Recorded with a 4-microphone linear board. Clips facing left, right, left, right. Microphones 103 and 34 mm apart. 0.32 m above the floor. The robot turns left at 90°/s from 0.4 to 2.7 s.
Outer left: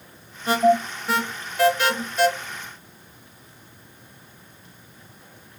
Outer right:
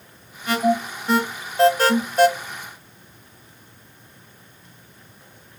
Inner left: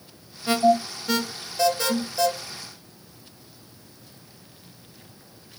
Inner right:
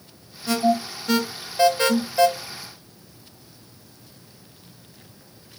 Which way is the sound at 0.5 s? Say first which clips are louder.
Outer left 2 dB, inner left 2 dB; 40° left (ahead or behind).